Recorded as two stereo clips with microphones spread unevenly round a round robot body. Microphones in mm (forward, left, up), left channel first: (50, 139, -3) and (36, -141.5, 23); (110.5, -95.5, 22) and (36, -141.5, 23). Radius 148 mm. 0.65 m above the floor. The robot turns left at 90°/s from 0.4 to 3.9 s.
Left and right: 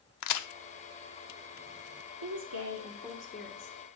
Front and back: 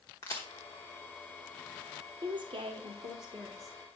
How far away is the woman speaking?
About 1.5 m.